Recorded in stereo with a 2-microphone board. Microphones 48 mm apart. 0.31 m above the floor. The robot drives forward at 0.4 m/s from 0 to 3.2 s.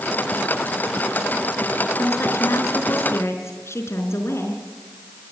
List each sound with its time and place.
2.0 s a woman speaking: 75° left (ahead or behind), 4.5 m; by 4.6 s 70° left (ahead or behind), 4.5 m